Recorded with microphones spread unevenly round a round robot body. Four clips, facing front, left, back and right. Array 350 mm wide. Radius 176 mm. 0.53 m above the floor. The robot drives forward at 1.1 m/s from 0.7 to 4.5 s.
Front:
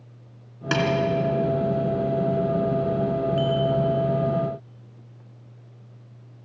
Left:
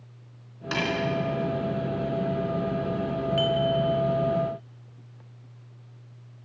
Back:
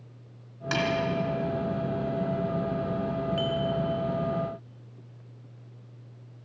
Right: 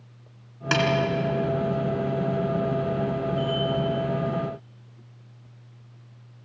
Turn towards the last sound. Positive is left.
turn(degrees=95)